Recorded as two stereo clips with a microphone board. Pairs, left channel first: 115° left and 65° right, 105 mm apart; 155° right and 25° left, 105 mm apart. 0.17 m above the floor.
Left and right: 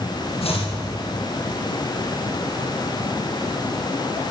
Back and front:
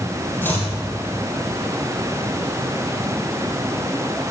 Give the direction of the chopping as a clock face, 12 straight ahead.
8 o'clock.